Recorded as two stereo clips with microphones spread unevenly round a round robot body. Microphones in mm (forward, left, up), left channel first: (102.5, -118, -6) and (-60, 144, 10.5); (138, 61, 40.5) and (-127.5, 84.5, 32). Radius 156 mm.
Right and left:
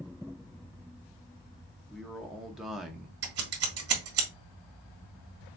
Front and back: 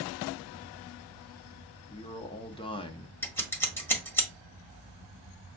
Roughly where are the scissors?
Left.